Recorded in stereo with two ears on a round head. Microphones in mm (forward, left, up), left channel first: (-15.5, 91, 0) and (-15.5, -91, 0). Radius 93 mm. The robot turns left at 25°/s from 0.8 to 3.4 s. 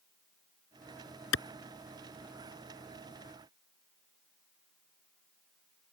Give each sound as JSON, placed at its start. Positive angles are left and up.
{"t": 1.3, "sound": "a clap", "side_deg": 70}